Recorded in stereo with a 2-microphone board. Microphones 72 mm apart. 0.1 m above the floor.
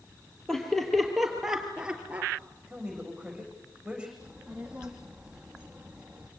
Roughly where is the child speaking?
Centre.